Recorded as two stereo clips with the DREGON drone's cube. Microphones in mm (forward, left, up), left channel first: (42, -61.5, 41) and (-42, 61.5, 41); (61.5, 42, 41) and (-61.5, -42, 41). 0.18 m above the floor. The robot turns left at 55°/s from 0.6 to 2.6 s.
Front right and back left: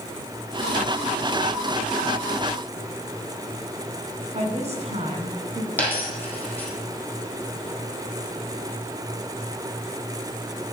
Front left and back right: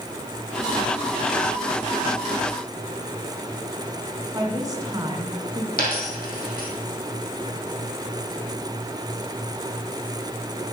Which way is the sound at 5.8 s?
25° left.